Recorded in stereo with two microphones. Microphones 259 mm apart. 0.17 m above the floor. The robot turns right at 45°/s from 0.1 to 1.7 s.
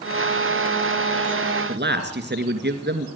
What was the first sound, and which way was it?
A man speaking, 45° right (ahead or behind).